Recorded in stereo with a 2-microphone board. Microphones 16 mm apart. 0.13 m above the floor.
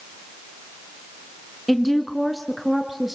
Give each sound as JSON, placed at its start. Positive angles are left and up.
{"t": 1.7, "sound": "a woman speaking", "side_deg": 10, "distance_m": 1.1}